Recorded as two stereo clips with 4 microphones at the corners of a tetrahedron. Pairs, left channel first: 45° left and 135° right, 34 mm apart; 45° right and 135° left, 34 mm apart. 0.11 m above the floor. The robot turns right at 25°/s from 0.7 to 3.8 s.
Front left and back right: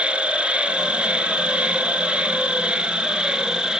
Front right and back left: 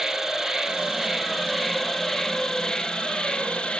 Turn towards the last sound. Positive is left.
turn(degrees=-80)